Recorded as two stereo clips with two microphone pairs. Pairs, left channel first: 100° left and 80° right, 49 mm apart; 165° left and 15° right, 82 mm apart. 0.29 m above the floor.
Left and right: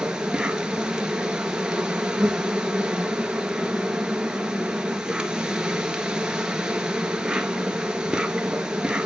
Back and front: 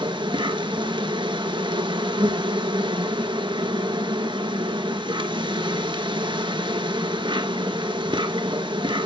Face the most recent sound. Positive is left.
turn(degrees=-5)